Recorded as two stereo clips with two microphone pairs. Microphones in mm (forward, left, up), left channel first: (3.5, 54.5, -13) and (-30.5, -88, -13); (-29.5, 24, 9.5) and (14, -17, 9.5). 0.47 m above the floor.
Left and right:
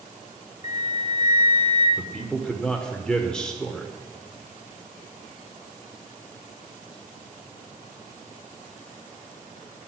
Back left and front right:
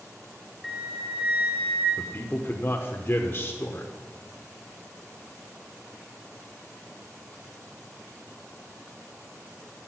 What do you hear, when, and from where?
0.6 s a flute: 40° left, 1.6 m
2.0 s a man speaking: 160° left, 1.0 m